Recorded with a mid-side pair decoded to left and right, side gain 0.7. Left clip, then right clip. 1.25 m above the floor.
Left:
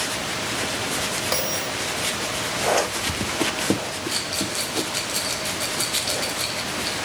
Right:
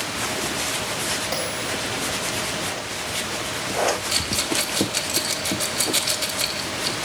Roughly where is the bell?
Ahead left.